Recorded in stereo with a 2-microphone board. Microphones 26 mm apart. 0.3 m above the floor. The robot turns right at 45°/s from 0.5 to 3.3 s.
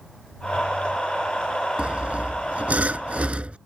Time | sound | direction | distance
1.8 | sawing | 125° right | ?